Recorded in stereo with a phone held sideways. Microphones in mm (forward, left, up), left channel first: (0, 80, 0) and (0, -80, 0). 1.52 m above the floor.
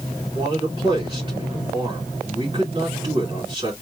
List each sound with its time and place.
0.3 s a man speaking: 30° right (ahead or behind), 2.5 m